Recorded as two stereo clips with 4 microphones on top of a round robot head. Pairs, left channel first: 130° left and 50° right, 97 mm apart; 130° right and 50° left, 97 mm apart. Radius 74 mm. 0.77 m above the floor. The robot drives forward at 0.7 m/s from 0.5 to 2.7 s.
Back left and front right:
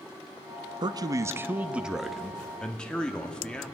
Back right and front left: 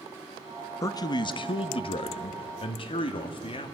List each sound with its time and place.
0.8 s a man speaking: 80° right, 0.9 m; by 3.8 s 150° right, 1.5 m